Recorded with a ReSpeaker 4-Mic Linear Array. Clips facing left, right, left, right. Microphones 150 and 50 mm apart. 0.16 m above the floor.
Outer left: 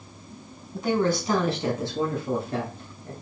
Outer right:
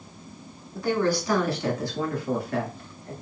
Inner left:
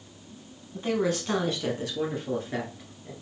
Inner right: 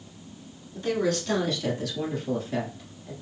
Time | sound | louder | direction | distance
0.7 | a woman speaking | even, inner right 1 dB | 20° left (ahead or behind) | 1.0 m